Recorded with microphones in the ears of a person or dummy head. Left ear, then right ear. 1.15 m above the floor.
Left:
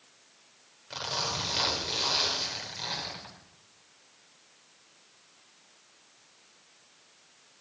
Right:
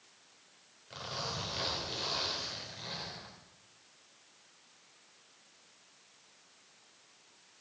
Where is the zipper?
30° left (ahead or behind), 3.5 m.